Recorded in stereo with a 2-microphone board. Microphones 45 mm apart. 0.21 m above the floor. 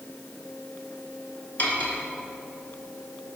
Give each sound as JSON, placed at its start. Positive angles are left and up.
{"t": 1.6, "sound": "cutlery clinking", "side_deg": 50, "distance_m": 1.6}